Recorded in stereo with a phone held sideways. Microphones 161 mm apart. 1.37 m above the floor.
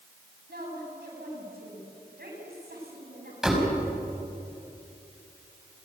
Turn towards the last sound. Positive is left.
turn(degrees=0)  # may be behind; listen again after turning